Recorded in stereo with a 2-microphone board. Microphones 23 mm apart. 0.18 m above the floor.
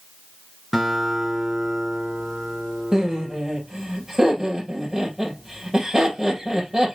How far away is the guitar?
About 2.5 m.